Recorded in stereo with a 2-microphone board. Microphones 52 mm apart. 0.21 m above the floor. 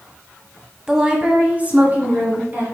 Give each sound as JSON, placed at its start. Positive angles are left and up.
{"t": 0.9, "sound": "a woman speaking", "side_deg": -10, "distance_m": 1.2}